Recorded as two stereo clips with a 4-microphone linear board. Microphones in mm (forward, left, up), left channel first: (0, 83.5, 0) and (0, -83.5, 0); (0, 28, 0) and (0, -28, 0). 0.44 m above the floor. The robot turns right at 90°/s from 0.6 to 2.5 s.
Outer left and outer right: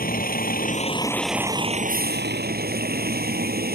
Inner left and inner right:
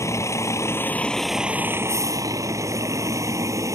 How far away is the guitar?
I don't hear a guitar.